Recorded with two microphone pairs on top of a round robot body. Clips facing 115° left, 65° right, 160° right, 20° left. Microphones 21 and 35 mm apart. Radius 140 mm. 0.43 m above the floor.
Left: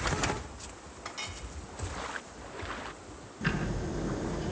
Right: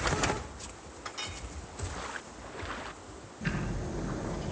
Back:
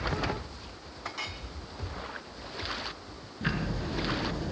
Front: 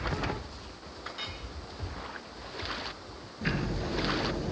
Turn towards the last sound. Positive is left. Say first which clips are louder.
# left 3 dB, even
turn(degrees=160)